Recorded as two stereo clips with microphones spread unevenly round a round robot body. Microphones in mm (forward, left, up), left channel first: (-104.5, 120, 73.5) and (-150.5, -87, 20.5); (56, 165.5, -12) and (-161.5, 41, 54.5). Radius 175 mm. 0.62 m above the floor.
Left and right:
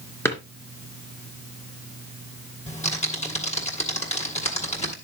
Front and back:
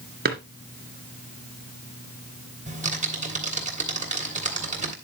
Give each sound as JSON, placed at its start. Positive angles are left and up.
{"t": 0.2, "sound": "a drawer", "azimuth_deg": 155, "distance_m": 2.5}
{"t": 2.7, "sound": "typing on a keyboard", "azimuth_deg": 140, "distance_m": 3.0}